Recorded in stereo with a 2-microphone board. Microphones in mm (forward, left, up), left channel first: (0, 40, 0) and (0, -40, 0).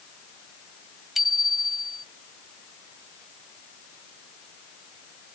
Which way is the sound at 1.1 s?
5° right (ahead or behind).